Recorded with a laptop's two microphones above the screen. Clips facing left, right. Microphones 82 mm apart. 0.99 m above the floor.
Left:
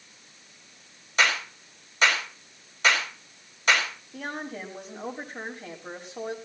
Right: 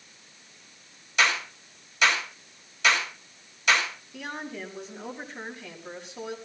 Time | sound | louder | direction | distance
1.2 | a clap | even | 40° left (ahead or behind) | 4.5 m
4.1 | a woman speaking | left 2 dB | 55° left (ahead or behind) | 6 m